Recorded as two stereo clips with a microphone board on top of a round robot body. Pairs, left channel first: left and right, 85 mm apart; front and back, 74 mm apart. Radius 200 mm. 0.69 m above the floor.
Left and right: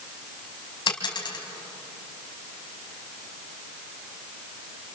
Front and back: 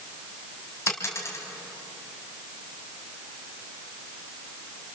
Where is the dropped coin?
55° left, 1.9 m.